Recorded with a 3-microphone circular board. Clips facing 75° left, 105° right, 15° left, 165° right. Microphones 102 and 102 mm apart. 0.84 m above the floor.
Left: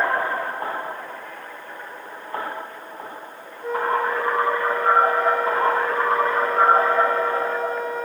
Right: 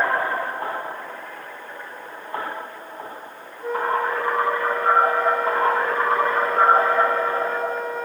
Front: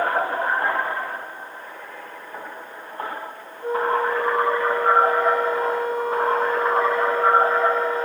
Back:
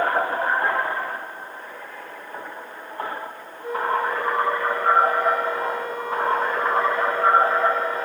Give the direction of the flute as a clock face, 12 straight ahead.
1 o'clock.